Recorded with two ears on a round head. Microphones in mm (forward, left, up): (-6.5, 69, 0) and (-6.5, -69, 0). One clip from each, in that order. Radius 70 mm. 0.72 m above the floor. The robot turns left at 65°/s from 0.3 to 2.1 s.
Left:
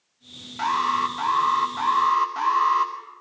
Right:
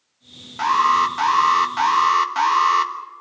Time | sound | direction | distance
0.6 | an alarm | 15° right | 2 m